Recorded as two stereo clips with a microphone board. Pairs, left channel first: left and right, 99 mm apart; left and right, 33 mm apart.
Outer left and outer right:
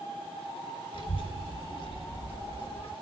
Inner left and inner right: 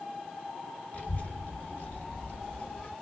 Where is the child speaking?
55° left (ahead or behind), 1.6 m; by 2.9 s 60° left (ahead or behind), 0.9 m.